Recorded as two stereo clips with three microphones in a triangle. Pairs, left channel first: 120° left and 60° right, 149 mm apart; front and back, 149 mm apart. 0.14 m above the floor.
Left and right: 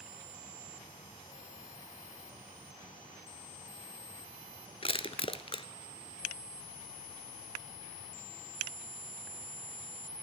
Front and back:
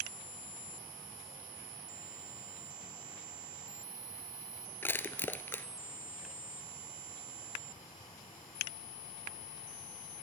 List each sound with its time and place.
4.8 s crushing: 75° left, 0.7 m